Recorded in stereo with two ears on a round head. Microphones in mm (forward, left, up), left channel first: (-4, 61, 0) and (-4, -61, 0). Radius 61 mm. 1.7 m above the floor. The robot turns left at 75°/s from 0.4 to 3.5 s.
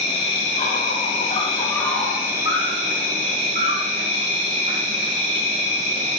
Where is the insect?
125° left, 2 m; by 6.2 s 110° right, 2 m.